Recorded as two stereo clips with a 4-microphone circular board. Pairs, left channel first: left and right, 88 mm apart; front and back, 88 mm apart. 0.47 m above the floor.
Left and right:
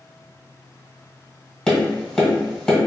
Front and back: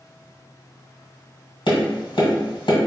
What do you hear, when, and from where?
1.7 s tapping: 10° left, 1.7 m